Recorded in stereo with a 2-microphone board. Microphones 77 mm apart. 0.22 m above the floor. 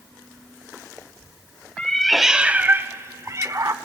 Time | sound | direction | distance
1.8 | a cat meowing | 10° left (ahead or behind) | 0.6 m